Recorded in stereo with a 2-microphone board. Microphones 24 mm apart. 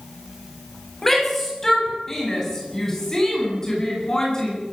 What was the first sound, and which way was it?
A shout, 15° left (ahead or behind).